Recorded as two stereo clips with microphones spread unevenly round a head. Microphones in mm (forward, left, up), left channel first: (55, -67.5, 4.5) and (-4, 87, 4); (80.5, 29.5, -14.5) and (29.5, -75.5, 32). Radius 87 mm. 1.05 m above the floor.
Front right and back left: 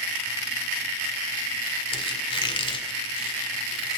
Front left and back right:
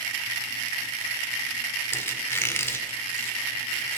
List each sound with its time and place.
1.9 s a squeak: 10° right, 1.9 m